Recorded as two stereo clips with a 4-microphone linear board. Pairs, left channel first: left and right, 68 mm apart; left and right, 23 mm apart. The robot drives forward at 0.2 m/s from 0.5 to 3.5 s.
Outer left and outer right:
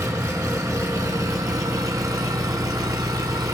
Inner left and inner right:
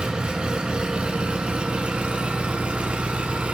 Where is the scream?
I don't hear a scream.